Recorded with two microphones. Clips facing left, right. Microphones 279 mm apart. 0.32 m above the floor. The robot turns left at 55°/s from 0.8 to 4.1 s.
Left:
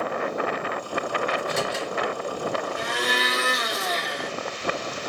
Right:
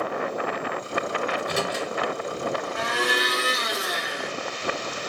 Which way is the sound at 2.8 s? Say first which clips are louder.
Right 1 dB; 105° right.